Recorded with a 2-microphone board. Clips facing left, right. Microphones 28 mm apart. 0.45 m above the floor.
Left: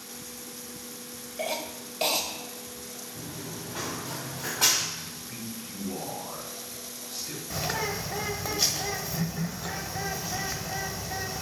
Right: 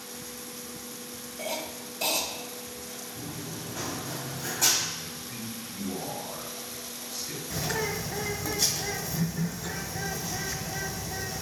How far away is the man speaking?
About 4 m.